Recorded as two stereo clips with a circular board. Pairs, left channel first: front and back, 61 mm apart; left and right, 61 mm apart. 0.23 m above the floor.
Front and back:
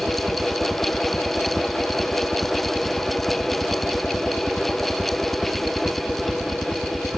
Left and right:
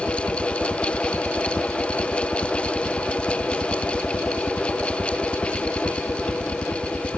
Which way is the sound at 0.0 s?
80° left.